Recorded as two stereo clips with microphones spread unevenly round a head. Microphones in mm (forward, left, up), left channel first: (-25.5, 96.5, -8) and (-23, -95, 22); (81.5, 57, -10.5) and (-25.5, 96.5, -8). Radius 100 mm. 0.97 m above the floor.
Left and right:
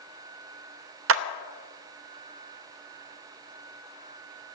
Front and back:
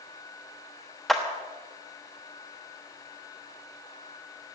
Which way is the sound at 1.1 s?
110° right.